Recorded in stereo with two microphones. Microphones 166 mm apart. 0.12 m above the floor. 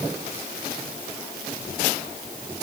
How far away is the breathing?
I don't hear breathing.